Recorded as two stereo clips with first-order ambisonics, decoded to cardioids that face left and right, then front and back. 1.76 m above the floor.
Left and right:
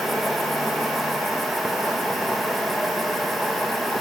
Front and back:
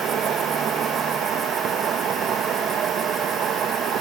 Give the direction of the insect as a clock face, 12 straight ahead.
6 o'clock.